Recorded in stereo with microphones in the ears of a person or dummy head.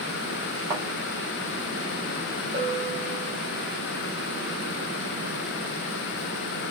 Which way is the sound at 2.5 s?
30° right (ahead or behind).